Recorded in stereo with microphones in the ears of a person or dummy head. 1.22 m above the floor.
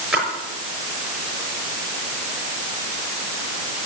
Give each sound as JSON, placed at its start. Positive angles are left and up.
{"t": 0.1, "sound": "a splash", "side_deg": -10, "distance_m": 6.0}